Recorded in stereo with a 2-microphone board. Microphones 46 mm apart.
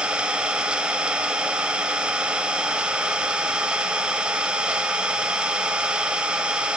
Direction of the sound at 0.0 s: 20° right (ahead or behind).